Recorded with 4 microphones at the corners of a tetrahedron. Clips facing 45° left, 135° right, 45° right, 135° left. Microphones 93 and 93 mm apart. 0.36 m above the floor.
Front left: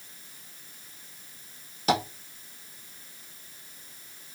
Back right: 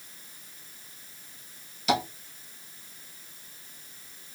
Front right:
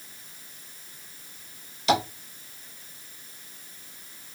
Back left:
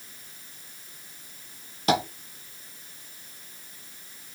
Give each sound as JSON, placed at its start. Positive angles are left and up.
{"t": 1.9, "sound": "tapping", "azimuth_deg": 90, "distance_m": 1.6}